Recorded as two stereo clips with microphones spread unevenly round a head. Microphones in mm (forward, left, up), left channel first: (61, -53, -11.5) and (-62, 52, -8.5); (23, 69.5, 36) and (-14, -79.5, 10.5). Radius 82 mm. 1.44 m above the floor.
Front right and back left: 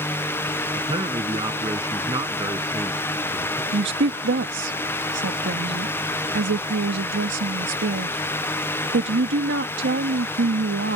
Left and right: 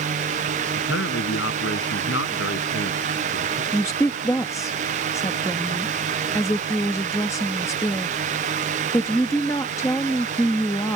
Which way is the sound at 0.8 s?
75° left.